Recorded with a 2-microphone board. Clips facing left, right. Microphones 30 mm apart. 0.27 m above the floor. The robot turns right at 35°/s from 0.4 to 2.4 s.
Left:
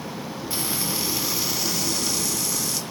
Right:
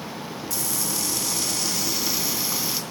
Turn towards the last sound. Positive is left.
turn(degrees=-165)